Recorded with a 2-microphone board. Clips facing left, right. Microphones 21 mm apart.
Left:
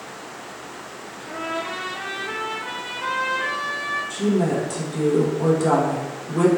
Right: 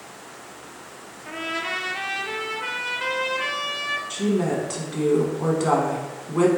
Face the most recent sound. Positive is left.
turn(degrees=-25)  # may be behind; listen again after turning